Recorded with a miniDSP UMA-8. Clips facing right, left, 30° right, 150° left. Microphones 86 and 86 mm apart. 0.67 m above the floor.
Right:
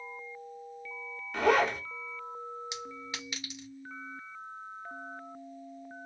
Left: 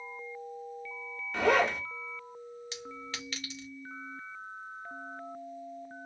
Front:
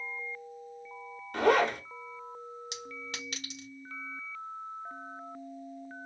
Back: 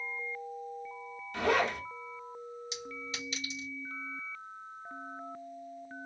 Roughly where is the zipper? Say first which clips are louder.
Even, front 4 dB; ahead.